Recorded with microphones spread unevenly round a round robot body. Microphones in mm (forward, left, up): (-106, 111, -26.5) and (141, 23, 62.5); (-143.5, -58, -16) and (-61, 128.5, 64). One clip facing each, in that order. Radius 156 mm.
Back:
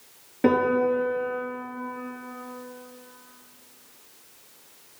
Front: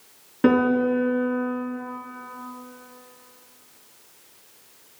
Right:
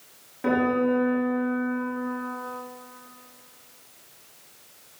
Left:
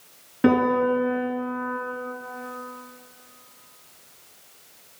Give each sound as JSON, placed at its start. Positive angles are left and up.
{"t": 0.4, "sound": "a piano", "azimuth_deg": 45, "distance_m": 3.5}